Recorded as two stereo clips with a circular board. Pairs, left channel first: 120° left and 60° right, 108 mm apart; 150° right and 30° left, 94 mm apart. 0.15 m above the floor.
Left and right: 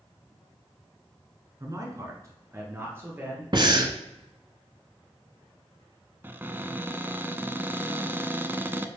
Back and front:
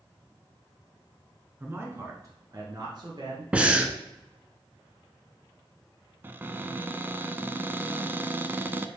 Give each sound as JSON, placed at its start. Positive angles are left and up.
{"t": 1.6, "sound": "a man speaking", "azimuth_deg": -25, "distance_m": 1.7}
{"t": 3.5, "sound": "breathing", "azimuth_deg": -45, "distance_m": 0.9}
{"t": 6.2, "sound": "a cupboard door", "azimuth_deg": -10, "distance_m": 0.5}